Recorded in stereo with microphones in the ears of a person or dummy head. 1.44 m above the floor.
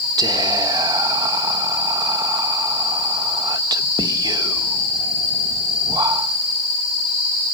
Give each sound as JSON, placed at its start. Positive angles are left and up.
{"t": 0.2, "sound": "whispering", "side_deg": -20, "distance_m": 1.4}